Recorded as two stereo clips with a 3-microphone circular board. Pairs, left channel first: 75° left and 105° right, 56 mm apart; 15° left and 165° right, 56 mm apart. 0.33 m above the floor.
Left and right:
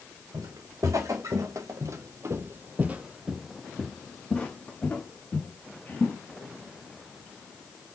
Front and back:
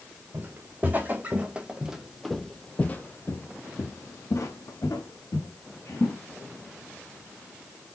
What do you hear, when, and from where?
0.3 s footsteps: 115° right, 1.6 m; by 6.2 s 20° left, 2 m